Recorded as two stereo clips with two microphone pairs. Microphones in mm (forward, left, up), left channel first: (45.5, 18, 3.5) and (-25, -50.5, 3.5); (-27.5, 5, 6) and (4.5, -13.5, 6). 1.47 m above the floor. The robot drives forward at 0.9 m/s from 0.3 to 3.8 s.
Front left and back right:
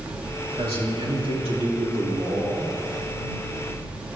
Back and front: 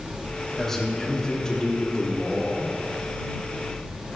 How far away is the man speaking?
About 4 m.